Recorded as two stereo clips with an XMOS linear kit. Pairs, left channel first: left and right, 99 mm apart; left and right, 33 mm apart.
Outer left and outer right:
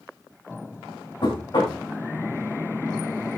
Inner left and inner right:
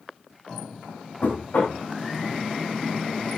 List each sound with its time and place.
1.2 s knocking: 50° left (ahead or behind), 7 m